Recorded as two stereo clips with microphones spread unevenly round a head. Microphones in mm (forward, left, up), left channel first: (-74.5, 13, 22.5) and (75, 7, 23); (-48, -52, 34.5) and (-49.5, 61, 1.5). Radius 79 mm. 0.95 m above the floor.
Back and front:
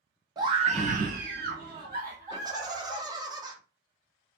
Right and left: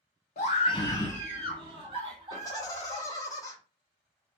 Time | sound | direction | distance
0.4 | a scream | 60° right | 0.6 m
2.3 | laughter | 25° right | 0.9 m